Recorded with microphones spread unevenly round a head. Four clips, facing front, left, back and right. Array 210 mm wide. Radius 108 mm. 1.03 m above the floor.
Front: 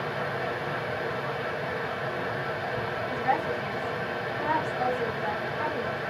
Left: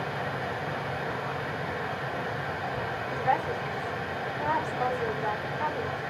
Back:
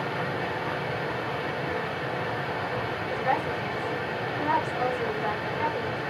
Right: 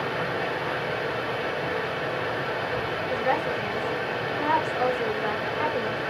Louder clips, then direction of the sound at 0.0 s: Right 4 dB, back 1 dB; 100° right.